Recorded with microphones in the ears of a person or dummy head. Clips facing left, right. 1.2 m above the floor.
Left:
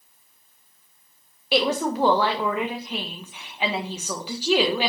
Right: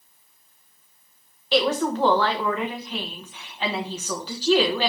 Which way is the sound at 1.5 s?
10° left (ahead or behind).